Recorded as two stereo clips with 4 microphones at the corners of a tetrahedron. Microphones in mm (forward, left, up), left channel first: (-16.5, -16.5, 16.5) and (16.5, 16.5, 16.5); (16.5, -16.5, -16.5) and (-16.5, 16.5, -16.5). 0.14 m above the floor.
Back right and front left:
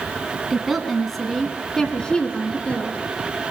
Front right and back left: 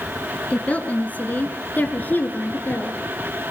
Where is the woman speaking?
35° right, 1.5 m; by 3.0 s 80° right, 2 m.